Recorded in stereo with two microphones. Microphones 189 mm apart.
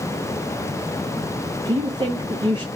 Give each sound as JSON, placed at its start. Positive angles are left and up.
{"t": 1.6, "sound": "a woman speaking", "side_deg": -25, "distance_m": 0.5}